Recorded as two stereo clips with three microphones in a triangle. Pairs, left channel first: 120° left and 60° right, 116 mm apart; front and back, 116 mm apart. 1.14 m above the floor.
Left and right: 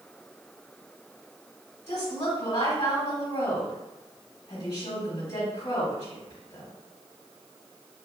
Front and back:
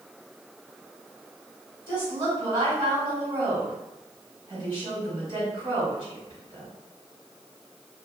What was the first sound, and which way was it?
A woman speaking, 140° left.